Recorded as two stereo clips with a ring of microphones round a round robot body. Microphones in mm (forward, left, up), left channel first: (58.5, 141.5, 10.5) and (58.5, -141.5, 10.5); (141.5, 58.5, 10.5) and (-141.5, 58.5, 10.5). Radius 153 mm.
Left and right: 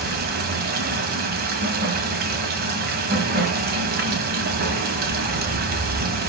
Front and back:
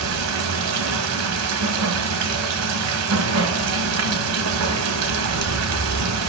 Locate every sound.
0.0 s running water: 150° right, 1.6 m